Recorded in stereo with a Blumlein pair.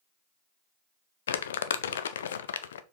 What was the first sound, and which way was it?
Crumpling, 65° left.